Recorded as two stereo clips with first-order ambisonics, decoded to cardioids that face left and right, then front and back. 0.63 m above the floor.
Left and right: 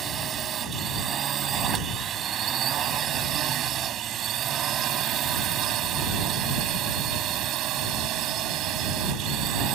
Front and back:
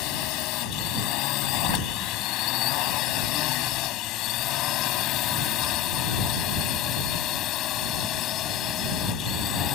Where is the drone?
30° right; by 9.7 s 50° right.